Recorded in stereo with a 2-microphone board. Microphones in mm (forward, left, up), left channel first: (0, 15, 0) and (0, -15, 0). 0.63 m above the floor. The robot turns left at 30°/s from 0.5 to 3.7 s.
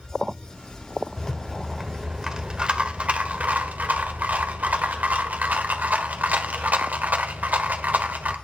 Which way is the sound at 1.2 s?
10° left.